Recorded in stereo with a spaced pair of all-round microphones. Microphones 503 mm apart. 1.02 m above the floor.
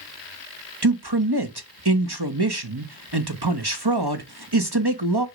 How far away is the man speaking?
About 1.4 m.